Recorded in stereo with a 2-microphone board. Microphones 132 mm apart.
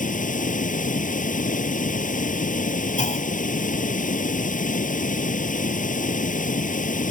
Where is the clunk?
80° left.